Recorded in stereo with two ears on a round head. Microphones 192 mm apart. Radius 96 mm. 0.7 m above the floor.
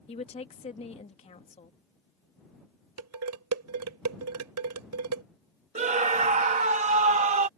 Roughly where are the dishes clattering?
Right.